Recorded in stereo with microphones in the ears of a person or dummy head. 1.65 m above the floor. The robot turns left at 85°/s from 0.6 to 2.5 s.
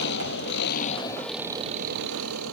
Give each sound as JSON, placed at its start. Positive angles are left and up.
{"t": 0.0, "sound": "an engine running", "azimuth_deg": 65}